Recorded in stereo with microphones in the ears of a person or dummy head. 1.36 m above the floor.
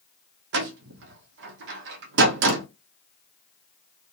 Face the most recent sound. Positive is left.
turn(degrees=-60)  # may be behind; listen again after turning